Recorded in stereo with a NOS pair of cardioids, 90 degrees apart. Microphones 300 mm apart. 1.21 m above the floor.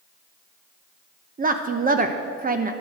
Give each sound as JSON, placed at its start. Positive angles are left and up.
{"t": 1.4, "sound": "a woman speaking", "azimuth_deg": -30, "distance_m": 1.0}